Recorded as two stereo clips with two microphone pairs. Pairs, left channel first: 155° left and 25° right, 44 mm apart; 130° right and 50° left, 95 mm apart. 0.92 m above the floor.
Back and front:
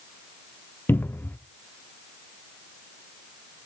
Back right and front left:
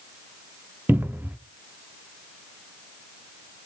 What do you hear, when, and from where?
0.9 s a cupboard door: 120° left, 0.7 m